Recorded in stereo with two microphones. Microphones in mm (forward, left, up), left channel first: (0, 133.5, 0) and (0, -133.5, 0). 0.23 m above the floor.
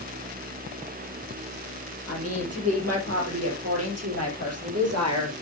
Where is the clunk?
I don't hear a clunk.